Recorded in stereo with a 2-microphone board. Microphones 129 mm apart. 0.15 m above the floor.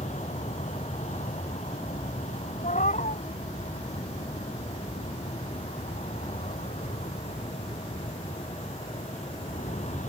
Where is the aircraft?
70° left (ahead or behind).